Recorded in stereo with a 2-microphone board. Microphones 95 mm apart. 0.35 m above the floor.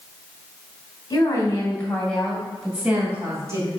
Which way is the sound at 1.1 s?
40° left (ahead or behind).